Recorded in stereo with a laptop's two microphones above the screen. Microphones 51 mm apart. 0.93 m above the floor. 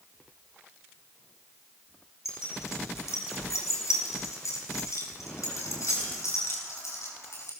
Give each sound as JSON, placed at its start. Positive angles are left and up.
{"t": 2.2, "sound": "keys jangling", "side_deg": 70, "distance_m": 5.0}